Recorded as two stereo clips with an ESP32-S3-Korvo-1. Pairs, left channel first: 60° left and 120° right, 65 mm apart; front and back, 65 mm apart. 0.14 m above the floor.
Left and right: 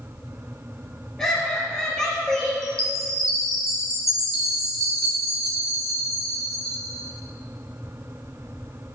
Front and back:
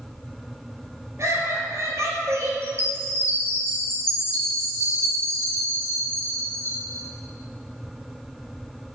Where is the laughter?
145° left, 3 m.